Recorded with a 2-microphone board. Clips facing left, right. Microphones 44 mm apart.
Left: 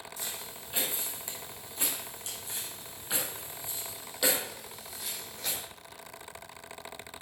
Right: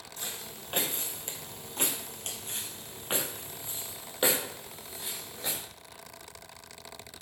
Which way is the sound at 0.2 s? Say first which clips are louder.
Right 4 dB; 50° right (ahead or behind).